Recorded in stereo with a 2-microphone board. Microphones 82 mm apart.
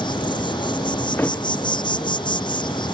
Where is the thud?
25° left (ahead or behind).